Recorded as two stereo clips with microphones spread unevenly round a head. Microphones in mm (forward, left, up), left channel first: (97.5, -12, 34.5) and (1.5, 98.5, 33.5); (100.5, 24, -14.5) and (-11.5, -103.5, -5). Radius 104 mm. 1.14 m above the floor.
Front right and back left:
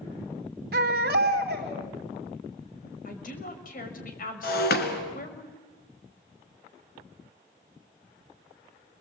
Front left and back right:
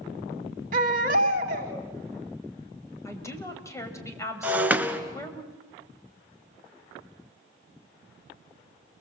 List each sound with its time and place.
0.7 s a baby crying: 175° left, 2.0 m
3.0 s a woman speaking: 25° right, 5.5 m
4.4 s breaking glass: 55° right, 2.5 m